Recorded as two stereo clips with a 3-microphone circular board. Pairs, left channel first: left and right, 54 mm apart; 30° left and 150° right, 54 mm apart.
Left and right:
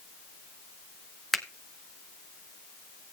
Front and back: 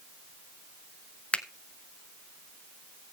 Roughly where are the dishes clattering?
I don't hear dishes clattering.